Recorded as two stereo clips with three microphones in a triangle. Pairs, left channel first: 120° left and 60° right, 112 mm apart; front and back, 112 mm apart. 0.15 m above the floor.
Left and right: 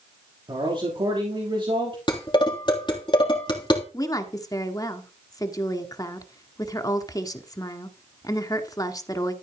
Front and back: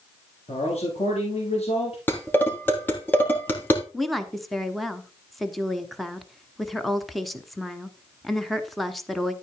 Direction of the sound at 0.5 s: 20° right.